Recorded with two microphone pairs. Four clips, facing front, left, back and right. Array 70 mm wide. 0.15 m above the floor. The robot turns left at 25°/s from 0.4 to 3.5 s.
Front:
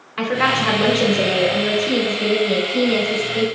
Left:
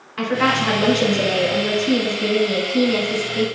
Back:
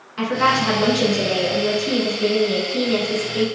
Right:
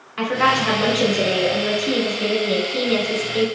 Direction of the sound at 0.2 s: 5° right.